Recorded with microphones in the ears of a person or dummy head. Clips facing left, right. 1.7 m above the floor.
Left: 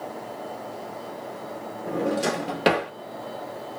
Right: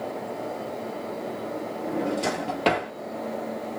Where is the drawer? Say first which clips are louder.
Left 2 dB; 15° left (ahead or behind), 1.2 m.